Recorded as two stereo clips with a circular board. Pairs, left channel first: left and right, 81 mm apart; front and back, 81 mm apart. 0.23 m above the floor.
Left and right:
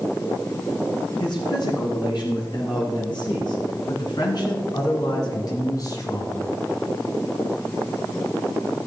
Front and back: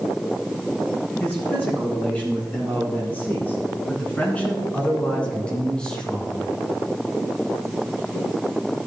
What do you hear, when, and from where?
1.2 s a man speaking: 70° left, 5 m; by 6.5 s 80° left, 1.5 m